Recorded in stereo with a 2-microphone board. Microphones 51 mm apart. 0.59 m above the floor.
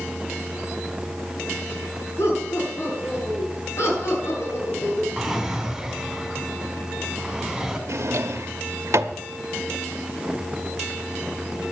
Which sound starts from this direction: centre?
A drawer, at 5.2 s.